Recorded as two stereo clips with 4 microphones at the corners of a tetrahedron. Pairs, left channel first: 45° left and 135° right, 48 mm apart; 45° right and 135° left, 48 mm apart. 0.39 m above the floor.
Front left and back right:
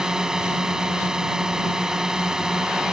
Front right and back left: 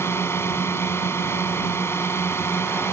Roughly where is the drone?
Ahead right.